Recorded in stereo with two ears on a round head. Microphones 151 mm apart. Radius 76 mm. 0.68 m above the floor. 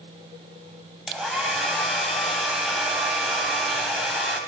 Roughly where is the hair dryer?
Centre.